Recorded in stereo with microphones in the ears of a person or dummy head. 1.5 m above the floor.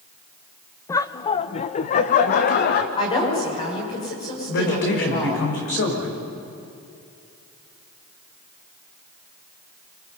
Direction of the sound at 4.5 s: 65° left (ahead or behind).